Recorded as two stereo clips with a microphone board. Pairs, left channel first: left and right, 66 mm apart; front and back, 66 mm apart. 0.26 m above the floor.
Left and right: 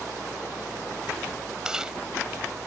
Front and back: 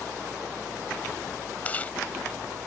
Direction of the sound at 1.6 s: 25° right.